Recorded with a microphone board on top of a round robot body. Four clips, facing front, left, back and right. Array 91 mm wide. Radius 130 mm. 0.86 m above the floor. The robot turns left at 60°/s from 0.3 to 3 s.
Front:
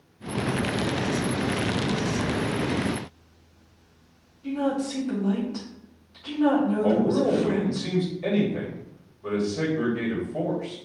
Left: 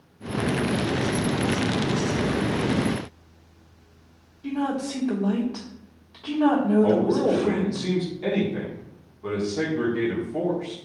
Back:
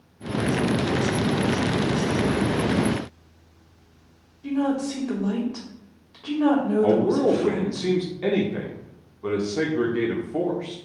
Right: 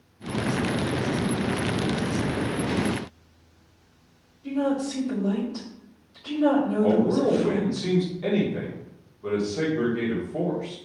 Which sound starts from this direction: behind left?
A woman speaking, at 4.4 s.